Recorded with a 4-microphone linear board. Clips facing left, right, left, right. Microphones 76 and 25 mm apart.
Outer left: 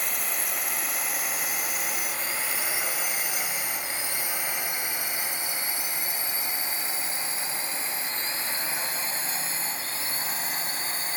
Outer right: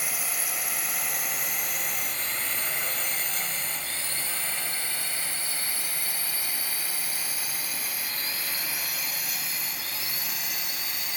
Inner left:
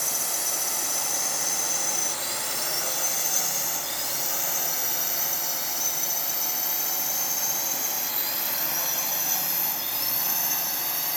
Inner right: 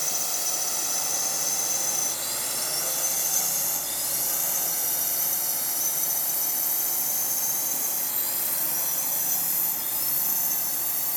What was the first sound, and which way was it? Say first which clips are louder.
A drone: outer left 1 dB, even; 5° right (ahead or behind).